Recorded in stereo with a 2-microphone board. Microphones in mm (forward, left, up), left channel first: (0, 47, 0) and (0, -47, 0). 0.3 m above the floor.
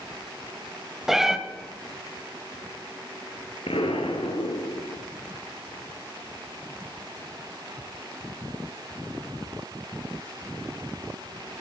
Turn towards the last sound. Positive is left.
turn(degrees=85)